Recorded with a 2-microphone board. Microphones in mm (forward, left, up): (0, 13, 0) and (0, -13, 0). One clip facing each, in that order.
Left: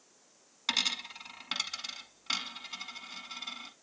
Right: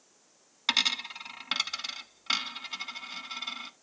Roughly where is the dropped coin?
Right.